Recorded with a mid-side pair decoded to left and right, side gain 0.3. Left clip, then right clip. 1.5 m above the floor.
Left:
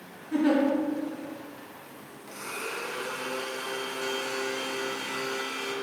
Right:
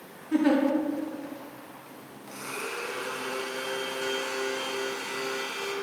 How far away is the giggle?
About 2.5 m.